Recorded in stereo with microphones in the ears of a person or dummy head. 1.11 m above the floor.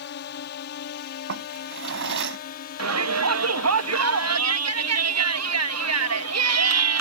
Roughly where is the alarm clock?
I don't hear an alarm clock.